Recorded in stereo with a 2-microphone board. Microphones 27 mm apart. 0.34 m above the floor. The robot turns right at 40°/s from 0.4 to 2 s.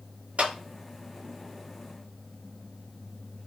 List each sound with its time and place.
0.4 s a clap: 65° right (ahead or behind), 2.5 m; by 0.5 s 70° right (ahead or behind), 2.5 m